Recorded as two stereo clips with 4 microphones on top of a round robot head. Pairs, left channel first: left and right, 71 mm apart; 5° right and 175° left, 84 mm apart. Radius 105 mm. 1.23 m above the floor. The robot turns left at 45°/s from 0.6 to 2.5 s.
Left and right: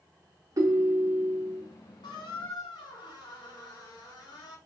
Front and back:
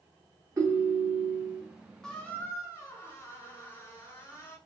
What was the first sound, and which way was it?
A ringtone, 125° right.